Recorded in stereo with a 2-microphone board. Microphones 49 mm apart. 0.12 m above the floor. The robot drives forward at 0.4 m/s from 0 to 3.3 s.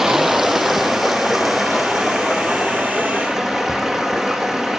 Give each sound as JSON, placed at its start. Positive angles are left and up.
{"t": 0.0, "sound": "running water", "side_deg": -10, "distance_m": 0.8}